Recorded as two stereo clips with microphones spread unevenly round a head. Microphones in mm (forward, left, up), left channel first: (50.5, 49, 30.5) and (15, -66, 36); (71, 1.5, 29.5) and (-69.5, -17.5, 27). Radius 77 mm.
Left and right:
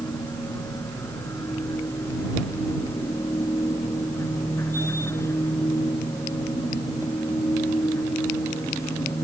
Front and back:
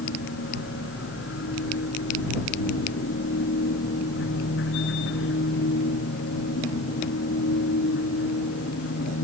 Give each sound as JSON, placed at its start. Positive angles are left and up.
{"t": 0.0, "sound": "a machine running", "azimuth_deg": 0}